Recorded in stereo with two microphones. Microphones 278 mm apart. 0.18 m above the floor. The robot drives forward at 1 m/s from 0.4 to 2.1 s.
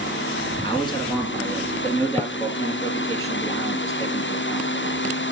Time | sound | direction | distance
0.6 | a man speaking | 20° left (ahead or behind) | 1.7 m